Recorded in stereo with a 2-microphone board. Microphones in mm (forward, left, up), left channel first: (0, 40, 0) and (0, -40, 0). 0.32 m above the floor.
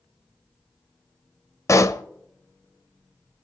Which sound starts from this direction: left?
A pop, at 1.7 s.